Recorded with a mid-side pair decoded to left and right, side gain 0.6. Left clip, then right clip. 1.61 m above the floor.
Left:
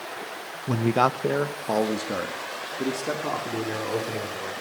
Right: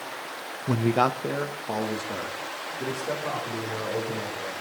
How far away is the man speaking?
About 1.0 m.